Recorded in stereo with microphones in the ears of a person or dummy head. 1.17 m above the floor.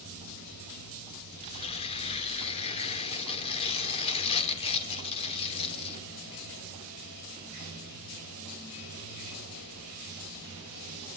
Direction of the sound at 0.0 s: 65° left (ahead or behind).